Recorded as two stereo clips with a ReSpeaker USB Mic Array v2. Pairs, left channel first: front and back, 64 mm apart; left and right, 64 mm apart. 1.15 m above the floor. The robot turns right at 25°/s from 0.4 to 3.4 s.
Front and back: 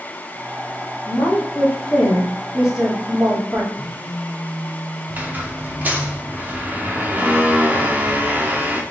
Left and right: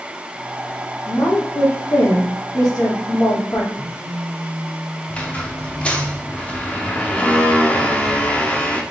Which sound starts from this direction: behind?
A phone buzzing, at 3.7 s.